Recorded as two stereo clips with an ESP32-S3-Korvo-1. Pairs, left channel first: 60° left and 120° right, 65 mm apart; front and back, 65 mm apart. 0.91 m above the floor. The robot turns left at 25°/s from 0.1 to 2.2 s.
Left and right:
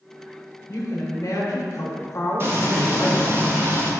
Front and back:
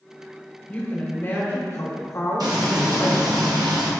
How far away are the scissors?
I don't hear scissors.